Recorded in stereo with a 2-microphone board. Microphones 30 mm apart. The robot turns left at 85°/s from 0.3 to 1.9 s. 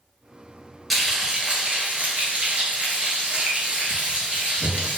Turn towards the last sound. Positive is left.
turn(degrees=-85)